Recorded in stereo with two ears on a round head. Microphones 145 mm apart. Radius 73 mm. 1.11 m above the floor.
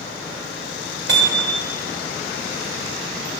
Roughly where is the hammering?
Right.